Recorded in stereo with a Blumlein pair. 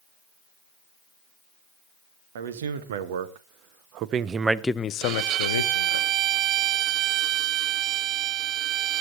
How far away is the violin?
About 0.5 m.